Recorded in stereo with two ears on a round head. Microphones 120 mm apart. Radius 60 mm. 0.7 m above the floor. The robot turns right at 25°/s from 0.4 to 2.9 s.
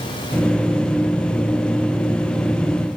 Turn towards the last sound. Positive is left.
No sound to turn to.